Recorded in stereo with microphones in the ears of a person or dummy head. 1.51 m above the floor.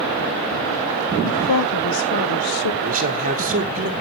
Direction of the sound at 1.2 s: 85° left.